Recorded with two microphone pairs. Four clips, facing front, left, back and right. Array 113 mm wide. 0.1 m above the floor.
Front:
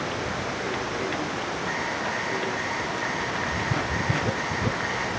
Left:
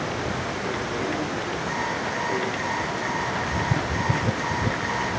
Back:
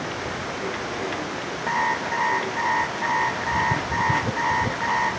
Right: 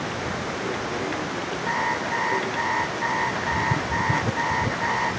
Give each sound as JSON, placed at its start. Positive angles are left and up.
{"t": 1.7, "sound": "an alarm clock", "azimuth_deg": -160, "distance_m": 4.0}